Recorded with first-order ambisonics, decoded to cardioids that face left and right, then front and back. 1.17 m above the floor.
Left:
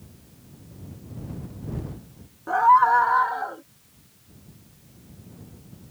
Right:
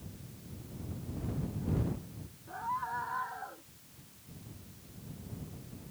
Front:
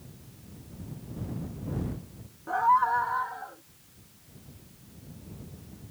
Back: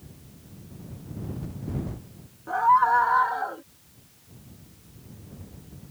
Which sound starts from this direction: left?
A scream, at 2.5 s.